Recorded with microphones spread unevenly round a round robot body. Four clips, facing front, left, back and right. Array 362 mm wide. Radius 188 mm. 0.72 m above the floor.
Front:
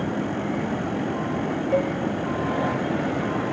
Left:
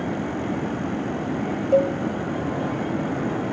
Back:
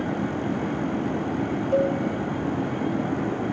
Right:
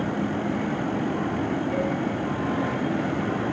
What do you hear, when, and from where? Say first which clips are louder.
1.7 s a cowbell: left 12 dB, back 2 dB; 65° left, 2 m